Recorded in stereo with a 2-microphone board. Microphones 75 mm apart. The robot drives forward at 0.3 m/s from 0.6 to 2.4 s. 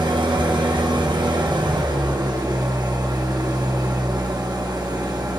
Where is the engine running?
80° right, 1.1 m; by 5.4 s 65° right (ahead or behind), 1.2 m.